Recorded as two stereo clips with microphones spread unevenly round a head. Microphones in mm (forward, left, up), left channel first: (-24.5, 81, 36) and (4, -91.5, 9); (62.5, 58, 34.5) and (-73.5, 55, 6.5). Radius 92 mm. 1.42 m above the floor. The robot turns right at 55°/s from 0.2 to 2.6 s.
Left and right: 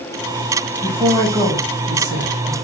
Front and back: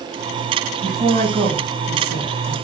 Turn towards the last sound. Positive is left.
turn(degrees=-55)